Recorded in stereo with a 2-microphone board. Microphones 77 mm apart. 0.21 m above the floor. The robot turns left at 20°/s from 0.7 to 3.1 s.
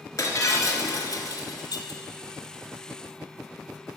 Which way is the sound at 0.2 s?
50° left (ahead or behind).